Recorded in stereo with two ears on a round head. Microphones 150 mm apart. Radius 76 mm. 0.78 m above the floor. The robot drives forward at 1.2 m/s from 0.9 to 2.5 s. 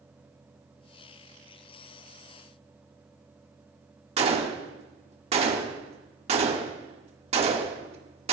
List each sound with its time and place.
4.2 s a gunshot: 40° right (ahead or behind), 1.3 m